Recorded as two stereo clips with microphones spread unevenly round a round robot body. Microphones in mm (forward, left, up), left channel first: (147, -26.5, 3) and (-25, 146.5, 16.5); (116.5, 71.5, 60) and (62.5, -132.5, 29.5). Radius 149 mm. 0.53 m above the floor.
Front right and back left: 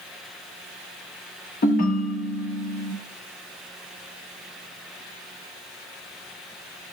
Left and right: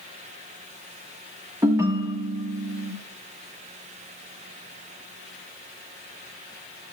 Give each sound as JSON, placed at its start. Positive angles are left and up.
{"t": 1.6, "sound": "a ringtone", "azimuth_deg": -50, "distance_m": 0.6}